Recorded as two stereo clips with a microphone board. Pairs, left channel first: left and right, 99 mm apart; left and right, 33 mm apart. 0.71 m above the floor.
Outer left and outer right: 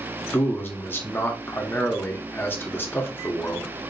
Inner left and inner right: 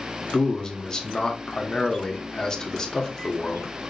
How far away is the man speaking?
About 1.0 m.